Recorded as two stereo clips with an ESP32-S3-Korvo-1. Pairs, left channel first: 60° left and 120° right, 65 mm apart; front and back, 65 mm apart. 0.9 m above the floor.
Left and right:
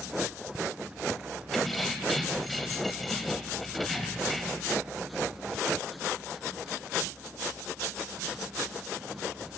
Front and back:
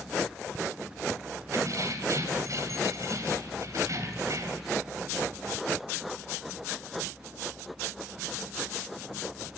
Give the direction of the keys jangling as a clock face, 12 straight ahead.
7 o'clock.